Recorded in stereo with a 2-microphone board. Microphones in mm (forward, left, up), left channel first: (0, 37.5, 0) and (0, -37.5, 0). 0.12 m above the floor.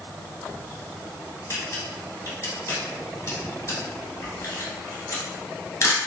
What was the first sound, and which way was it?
A camera shutter, 40° left (ahead or behind).